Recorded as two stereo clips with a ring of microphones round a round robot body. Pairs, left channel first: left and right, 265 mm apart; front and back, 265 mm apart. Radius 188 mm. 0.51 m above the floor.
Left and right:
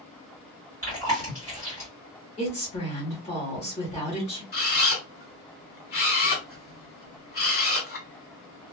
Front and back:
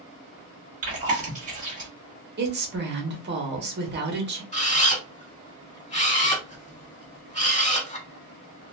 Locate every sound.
0.8 s chewing: 160° left, 1.4 m
2.4 s a woman speaking: 150° left, 1.0 m
4.5 s a camera shutter: 60° left, 1.6 m